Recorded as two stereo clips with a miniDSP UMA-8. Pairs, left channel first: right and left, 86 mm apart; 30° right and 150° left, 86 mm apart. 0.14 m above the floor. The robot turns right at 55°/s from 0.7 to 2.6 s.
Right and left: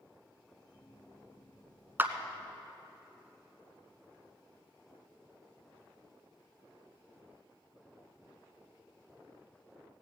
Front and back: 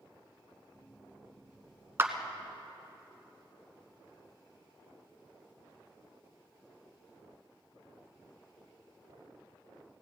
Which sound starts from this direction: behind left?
A clap, at 2.0 s.